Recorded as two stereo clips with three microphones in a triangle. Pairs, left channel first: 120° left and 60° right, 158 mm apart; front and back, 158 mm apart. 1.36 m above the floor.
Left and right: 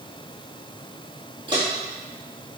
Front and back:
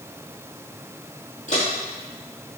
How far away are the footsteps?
About 2.0 m.